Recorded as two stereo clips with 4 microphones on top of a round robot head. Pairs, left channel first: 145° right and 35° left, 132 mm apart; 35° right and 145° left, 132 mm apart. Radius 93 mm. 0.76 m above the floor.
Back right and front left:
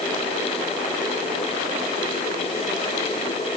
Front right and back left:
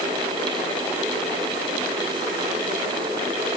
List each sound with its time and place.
Only background noise.